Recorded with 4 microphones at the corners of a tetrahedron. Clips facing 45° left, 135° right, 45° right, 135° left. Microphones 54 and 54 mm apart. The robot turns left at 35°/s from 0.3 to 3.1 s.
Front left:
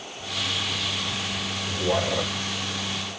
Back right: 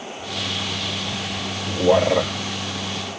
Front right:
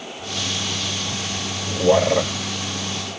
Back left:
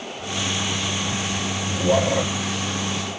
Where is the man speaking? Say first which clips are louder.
Back right 9 dB, front right 4 dB; 95° right, 2 m; by 2.3 s 120° right, 2 m.